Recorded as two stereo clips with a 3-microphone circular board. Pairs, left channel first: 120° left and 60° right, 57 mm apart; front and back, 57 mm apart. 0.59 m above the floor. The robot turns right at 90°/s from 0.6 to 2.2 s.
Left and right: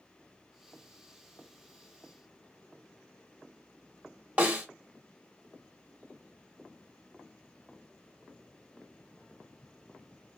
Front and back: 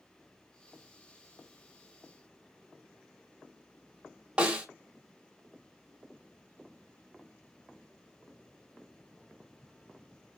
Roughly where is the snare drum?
Behind right.